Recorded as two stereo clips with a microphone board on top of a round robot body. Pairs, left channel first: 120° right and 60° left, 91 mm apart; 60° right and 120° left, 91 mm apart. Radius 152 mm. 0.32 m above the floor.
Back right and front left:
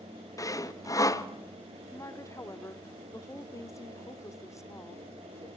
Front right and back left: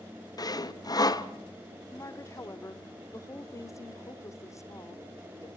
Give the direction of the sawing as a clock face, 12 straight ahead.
3 o'clock.